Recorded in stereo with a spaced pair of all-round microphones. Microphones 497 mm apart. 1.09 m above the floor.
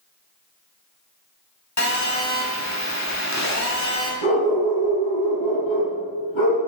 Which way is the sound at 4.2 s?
70° left (ahead or behind).